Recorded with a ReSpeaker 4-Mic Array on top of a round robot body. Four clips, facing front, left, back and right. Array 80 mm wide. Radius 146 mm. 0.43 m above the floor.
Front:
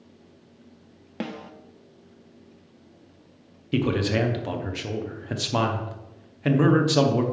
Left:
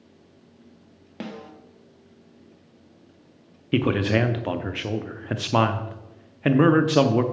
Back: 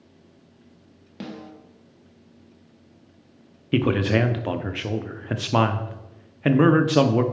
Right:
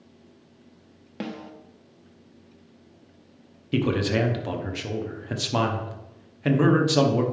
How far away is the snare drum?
About 1.4 m.